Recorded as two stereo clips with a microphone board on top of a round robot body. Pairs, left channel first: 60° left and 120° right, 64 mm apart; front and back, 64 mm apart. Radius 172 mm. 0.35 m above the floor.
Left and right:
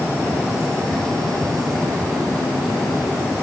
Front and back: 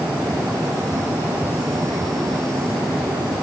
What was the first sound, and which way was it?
Only background noise.